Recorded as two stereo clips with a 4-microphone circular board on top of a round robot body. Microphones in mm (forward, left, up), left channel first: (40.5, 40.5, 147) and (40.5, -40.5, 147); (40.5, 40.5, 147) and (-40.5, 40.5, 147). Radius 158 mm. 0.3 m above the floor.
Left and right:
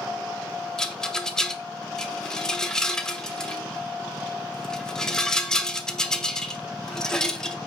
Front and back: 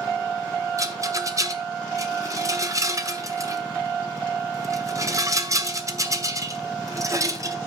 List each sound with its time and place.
0.8 s a rattle: 170° left, 1.3 m